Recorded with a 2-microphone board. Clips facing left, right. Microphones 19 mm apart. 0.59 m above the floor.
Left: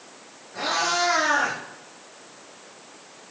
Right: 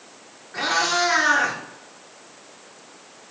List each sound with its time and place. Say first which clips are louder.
0.5 s a cat meowing: right 2 dB; 55° right (ahead or behind), 3 m